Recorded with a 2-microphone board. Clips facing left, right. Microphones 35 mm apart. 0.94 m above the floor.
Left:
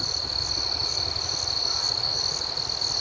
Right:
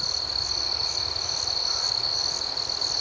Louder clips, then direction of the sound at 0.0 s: Even; 55° left (ahead or behind).